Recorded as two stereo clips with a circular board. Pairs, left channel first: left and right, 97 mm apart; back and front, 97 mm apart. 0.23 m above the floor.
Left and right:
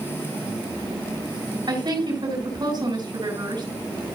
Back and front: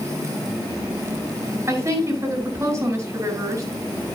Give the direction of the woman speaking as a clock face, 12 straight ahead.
2 o'clock.